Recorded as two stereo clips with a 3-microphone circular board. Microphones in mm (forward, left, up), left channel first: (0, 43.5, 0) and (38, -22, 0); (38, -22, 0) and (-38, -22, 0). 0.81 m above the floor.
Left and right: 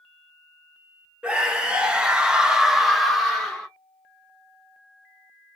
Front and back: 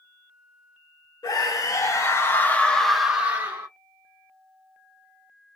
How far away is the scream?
About 1.2 m.